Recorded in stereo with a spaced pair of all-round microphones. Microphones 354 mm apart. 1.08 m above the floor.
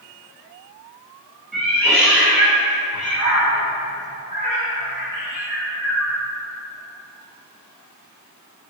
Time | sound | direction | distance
1.5 | a cat meowing | centre (ahead or behind) | 1.2 m